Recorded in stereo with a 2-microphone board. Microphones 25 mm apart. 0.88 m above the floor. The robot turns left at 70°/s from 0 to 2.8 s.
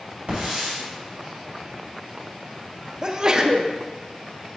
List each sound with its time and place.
0.3 s a hiss: 60° right (ahead or behind), 3.5 m; by 0.8 s 30° right (ahead or behind), 3.5 m
3.0 s a sneeze: 30° right (ahead or behind), 0.7 m